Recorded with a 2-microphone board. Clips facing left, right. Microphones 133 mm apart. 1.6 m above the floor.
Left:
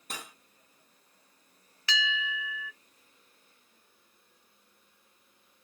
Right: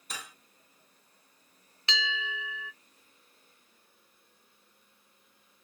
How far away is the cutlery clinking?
About 1.8 m.